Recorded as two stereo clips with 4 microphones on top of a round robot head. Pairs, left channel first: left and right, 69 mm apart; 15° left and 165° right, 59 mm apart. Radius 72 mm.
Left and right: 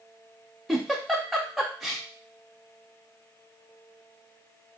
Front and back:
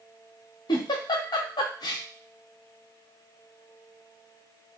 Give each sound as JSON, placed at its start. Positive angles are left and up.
{"t": 0.7, "sound": "a giggle", "azimuth_deg": 0, "distance_m": 0.6}